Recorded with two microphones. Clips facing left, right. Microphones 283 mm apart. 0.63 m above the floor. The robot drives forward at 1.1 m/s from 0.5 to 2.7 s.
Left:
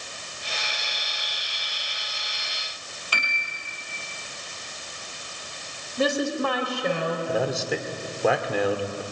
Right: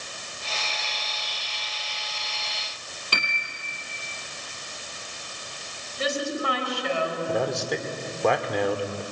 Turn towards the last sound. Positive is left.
turn(degrees=5)  # may be behind; listen again after turning